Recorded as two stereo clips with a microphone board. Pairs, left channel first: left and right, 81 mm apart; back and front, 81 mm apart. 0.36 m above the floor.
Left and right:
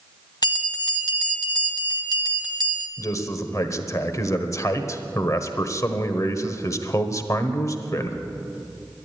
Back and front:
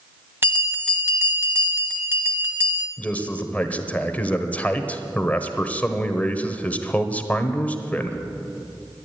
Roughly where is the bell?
Ahead left.